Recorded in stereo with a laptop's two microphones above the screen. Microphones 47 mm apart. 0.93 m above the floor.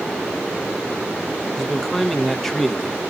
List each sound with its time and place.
1.6 s a man speaking: 10° left (ahead or behind), 0.9 m